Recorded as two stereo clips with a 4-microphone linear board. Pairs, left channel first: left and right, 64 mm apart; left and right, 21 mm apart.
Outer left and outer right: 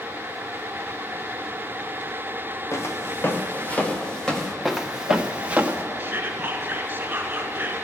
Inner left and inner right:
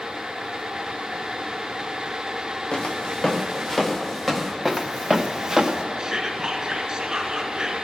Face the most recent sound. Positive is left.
turn(degrees=-30)  # may be behind; listen again after turning